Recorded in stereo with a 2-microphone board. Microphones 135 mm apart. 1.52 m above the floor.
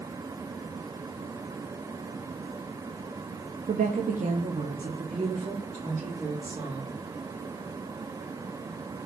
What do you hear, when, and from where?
3.7 s a woman speaking: 80° right, 0.5 m; by 6.9 s 70° right (ahead or behind), 2.5 m